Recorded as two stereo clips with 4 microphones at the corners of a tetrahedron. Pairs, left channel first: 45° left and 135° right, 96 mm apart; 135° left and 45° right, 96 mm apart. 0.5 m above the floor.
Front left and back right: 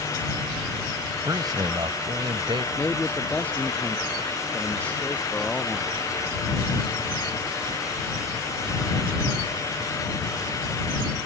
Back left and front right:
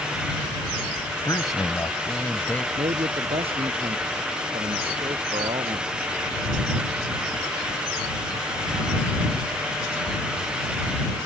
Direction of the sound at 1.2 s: Straight behind.